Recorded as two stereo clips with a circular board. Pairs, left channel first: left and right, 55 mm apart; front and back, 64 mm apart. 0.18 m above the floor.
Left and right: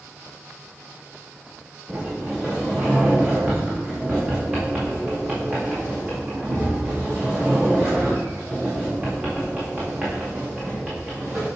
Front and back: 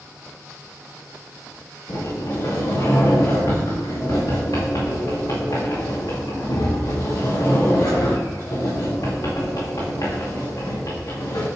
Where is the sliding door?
15° right, 5 m.